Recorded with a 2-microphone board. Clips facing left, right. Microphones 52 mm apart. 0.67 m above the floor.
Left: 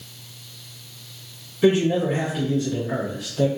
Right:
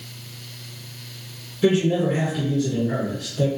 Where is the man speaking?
25° left (ahead or behind), 1.9 m.